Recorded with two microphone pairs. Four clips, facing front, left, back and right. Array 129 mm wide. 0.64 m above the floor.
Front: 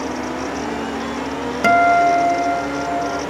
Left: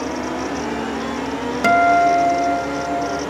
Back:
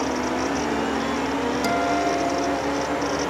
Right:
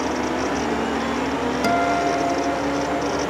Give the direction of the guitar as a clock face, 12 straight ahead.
11 o'clock.